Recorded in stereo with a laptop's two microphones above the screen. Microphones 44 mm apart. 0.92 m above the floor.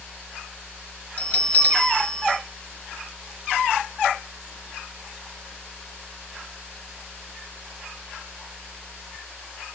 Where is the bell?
35° left (ahead or behind), 1.7 m.